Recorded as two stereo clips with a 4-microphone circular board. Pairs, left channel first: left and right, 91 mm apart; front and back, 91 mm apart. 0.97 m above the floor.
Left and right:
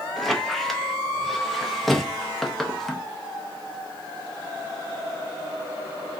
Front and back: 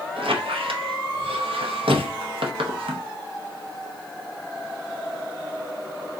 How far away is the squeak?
About 0.6 m.